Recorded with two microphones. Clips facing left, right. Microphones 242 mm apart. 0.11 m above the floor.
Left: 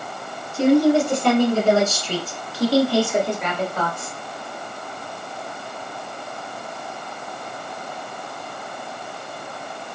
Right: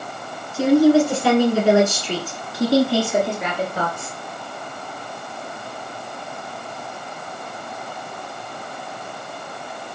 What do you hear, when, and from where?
0.5 s a woman speaking: centre (ahead or behind), 1.8 m; by 4.2 s 25° right (ahead or behind), 2.5 m